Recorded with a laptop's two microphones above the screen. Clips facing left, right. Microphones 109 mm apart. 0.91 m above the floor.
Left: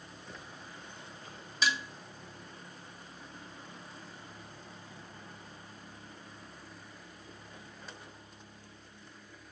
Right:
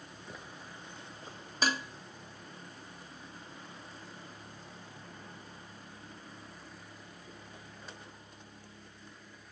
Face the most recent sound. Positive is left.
turn(degrees=-45)  # may be behind; listen again after turning